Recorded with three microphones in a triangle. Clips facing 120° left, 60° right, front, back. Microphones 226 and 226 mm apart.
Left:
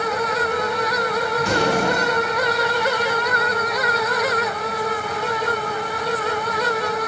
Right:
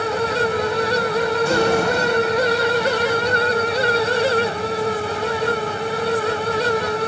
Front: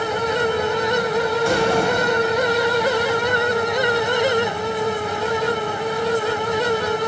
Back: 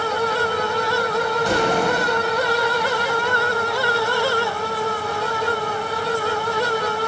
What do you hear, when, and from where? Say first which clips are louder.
1.4 s an explosion: right 2 dB, front 1 dB; 105° left, 4.5 m